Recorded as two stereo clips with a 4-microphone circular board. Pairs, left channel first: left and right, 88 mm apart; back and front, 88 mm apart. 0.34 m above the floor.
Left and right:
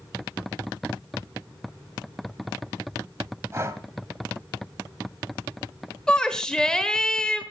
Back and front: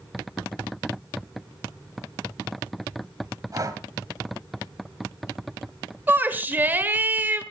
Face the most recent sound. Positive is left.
turn(degrees=20)